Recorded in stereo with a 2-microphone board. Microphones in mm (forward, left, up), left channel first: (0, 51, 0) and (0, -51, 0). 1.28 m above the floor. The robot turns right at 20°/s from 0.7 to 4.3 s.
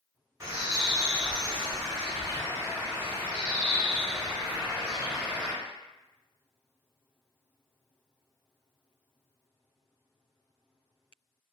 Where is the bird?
105° right, 1.3 m; by 5.5 s 35° right, 1.3 m.